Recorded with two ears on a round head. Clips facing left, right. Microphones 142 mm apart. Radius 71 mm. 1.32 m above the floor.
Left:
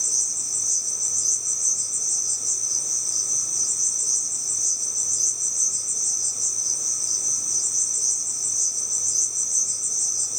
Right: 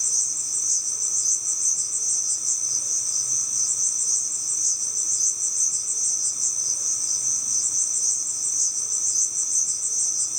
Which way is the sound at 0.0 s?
45° left (ahead or behind).